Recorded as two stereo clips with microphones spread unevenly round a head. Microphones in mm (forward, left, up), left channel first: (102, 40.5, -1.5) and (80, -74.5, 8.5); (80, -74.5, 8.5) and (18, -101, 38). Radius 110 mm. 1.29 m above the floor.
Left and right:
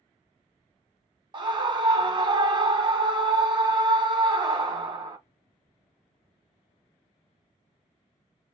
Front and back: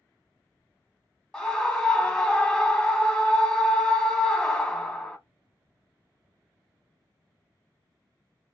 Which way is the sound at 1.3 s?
45° right.